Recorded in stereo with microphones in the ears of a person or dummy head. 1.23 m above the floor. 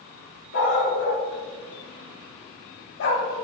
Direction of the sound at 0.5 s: 70° left (ahead or behind).